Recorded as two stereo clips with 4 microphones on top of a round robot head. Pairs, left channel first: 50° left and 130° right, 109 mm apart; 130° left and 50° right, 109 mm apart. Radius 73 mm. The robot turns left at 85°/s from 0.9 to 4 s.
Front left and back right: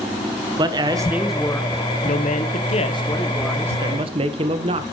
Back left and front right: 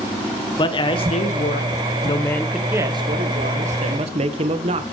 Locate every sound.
0.6 s a man speaking: straight behind, 1.5 m; by 4.8 s 85° right, 1.5 m